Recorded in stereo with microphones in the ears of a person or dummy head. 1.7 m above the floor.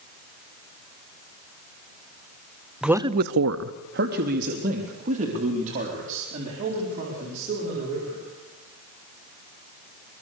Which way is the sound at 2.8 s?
Centre (ahead or behind).